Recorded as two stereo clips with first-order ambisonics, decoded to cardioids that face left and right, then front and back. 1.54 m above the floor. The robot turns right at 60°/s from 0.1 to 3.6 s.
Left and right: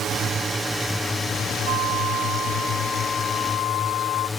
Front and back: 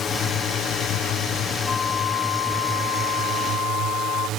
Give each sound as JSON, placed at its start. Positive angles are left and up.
{"t": 0.0, "sound": "a drone", "azimuth_deg": -50}
{"t": 1.6, "sound": "a flute", "azimuth_deg": -70}